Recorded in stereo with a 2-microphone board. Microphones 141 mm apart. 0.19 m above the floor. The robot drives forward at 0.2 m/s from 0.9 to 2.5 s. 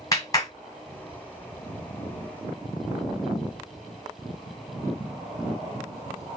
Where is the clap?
25° left (ahead or behind), 1.4 m.